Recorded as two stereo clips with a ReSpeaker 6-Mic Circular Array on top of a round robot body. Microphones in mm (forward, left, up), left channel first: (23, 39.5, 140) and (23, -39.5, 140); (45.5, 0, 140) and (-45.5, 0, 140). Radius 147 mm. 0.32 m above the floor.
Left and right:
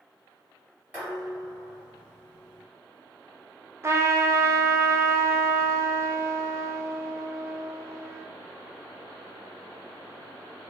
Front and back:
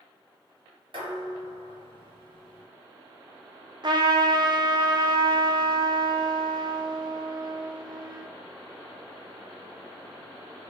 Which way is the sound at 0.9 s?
155° right.